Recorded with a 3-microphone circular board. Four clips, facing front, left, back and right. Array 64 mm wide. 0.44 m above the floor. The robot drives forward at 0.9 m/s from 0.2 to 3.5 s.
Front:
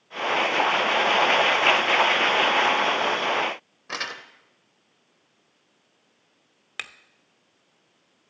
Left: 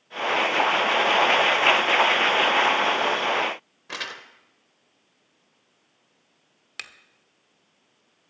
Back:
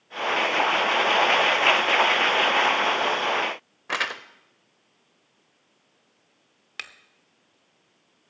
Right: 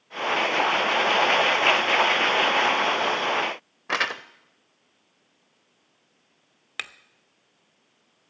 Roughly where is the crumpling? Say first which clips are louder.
Right 9 dB, back 5 dB; behind right.